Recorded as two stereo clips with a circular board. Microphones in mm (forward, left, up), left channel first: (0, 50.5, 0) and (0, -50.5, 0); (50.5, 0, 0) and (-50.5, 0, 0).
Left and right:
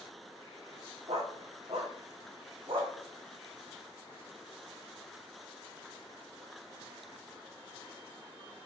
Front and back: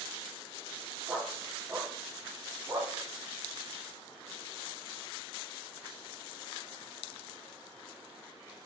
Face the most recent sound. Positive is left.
turn(degrees=-120)